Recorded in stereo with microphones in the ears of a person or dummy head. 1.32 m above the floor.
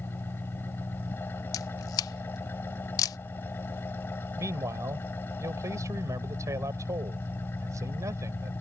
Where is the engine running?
15° left (ahead or behind).